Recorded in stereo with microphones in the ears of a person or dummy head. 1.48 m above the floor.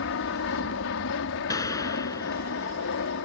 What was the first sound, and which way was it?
An aircraft, 60° left (ahead or behind).